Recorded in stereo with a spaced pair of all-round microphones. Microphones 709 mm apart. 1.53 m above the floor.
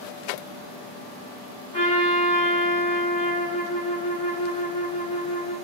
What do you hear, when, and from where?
1.7 s a trumpet: 10° left (ahead or behind), 4 m